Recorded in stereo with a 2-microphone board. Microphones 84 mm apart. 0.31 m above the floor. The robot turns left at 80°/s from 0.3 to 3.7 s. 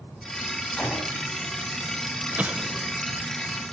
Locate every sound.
0.8 s a gunshot: 15° left, 3.5 m; by 1.2 s 20° right, 3.5 m
2.4 s an explosion: 20° right (ahead or behind), 0.6 m; by 3.0 s 5° left (ahead or behind), 0.6 m